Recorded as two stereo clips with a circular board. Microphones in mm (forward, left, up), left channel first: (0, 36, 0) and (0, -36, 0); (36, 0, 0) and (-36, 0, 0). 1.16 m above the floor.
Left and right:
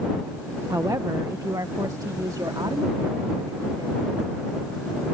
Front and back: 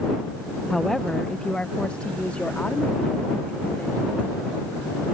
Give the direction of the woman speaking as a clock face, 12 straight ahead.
3 o'clock.